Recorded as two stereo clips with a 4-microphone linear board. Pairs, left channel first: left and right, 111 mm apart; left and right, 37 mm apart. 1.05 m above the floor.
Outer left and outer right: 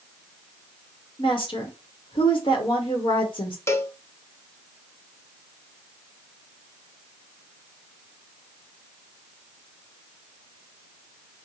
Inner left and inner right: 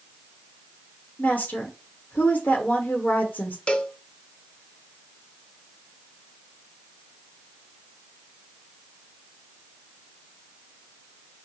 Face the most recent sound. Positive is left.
turn(degrees=25)  # may be behind; listen again after turning